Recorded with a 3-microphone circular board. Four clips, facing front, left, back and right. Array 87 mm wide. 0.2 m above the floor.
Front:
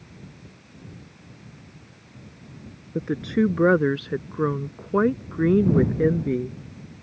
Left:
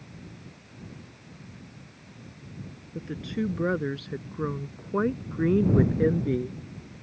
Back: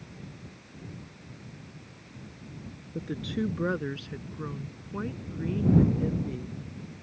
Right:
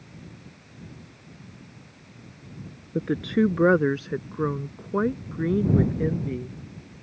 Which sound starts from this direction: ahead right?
A woman speaking, at 3.0 s.